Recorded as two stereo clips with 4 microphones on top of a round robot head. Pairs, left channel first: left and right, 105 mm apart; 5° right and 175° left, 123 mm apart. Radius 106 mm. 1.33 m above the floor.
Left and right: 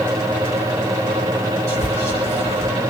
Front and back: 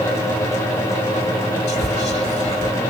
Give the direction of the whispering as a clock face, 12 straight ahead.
1 o'clock.